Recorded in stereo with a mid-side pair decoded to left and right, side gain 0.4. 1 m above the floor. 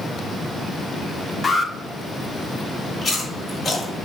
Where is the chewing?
50° left, 3.5 m.